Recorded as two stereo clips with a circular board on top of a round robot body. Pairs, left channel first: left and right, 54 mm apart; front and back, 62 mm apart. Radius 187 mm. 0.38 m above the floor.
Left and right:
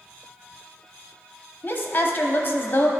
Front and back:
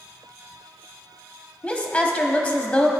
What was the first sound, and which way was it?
A woman speaking, 50° left.